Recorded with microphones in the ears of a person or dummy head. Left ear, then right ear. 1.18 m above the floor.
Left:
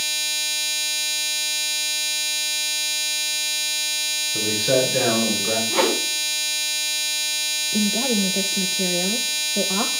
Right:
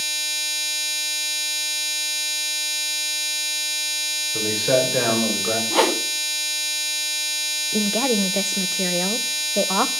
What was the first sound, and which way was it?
A man speaking, 25° right (ahead or behind).